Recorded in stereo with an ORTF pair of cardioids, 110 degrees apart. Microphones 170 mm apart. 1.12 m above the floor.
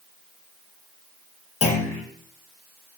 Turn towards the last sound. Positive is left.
turn(degrees=40)